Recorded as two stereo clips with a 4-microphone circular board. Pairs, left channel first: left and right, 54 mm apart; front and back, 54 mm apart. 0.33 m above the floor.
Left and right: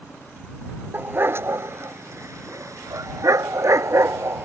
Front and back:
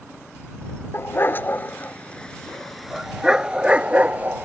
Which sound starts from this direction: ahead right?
A dog barking, at 0.9 s.